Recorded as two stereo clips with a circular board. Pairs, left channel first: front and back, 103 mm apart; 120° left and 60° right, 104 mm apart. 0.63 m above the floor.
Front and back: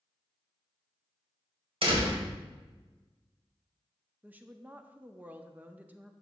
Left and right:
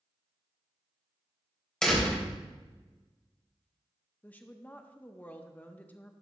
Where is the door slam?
160° right, 1.9 m.